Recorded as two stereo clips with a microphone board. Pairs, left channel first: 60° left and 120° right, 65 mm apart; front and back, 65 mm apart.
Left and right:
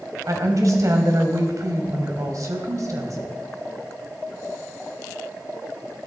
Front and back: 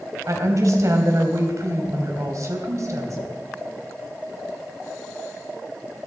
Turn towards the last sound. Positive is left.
turn(degrees=-150)